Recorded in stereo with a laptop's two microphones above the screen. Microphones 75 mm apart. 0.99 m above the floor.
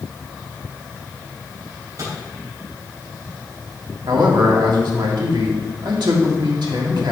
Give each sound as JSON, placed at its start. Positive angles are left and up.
{"t": 1.7, "sound": "a microwave", "side_deg": -50, "distance_m": 4.0}
{"t": 4.1, "sound": "a man speaking", "side_deg": -75, "distance_m": 1.9}